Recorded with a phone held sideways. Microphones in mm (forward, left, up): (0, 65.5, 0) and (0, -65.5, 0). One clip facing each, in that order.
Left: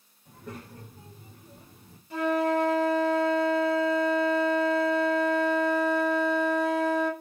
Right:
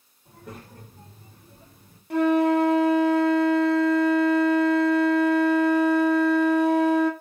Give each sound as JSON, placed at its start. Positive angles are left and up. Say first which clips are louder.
{"t": 0.2, "sound": "a child speaking", "louder": "even", "side_deg": -10, "distance_m": 2.0}
{"t": 2.1, "sound": "a flute", "louder": "right 6 dB", "side_deg": -75, "distance_m": 0.7}